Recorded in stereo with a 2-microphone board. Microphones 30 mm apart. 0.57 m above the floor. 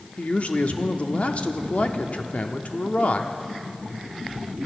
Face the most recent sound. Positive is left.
turn(degrees=45)  # may be behind; listen again after turning